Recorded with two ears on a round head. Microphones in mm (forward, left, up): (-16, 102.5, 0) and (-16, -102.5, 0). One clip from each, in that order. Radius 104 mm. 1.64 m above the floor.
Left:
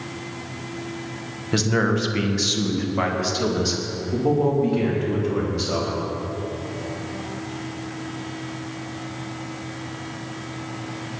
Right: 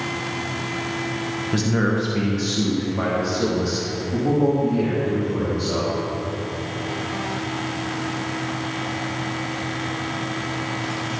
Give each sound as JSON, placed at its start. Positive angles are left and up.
{"t": 1.5, "sound": "a man speaking", "side_deg": 35, "distance_m": 1.9}